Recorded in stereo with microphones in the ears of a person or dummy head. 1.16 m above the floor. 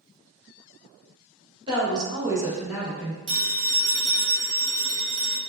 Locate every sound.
1.7 s a woman speaking: 25° right (ahead or behind), 1.1 m; by 3.2 s 10° left (ahead or behind), 0.9 m
3.3 s a phone ringing: 75° right (ahead or behind), 0.9 m